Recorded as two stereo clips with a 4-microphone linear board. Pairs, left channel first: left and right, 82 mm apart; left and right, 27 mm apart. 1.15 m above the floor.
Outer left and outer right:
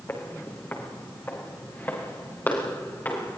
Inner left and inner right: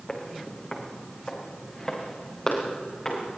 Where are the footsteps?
30° left (ahead or behind), 4 m; by 3.4 s 25° left (ahead or behind), 6 m.